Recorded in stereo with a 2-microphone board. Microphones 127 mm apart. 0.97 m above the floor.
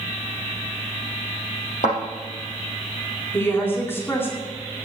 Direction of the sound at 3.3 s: 20° left (ahead or behind).